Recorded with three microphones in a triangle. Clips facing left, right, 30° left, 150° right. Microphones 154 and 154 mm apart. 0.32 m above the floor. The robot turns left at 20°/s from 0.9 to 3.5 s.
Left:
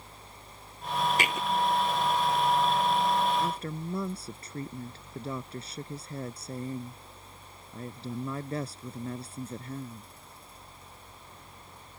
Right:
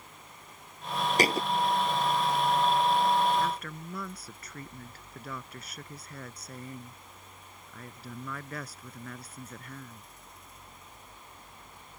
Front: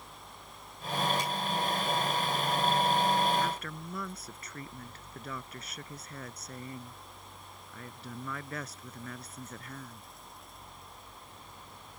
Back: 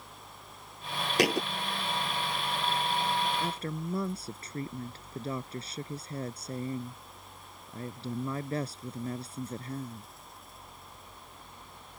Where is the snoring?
No snoring in this recording.